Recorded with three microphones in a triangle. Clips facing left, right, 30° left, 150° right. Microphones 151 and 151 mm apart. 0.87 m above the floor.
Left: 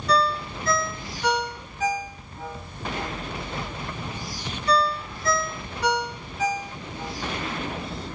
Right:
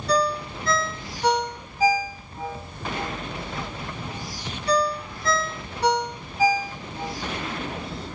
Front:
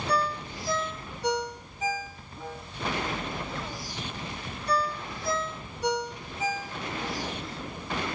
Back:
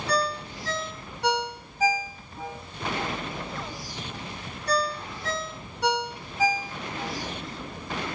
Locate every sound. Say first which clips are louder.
0.1 s a ringtone: even, back 2 dB; 145° right, 1.0 m